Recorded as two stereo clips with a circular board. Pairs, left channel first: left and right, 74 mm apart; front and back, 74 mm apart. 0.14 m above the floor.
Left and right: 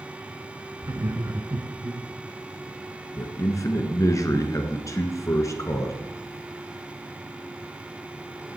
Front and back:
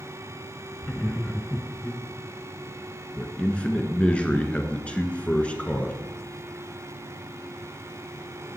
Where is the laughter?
65° right, 1.5 m.